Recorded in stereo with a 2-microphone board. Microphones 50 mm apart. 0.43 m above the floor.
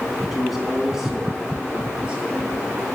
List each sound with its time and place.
0.3 s a man speaking: centre (ahead or behind), 4 m; by 2.8 s 25° right (ahead or behind), 5.5 m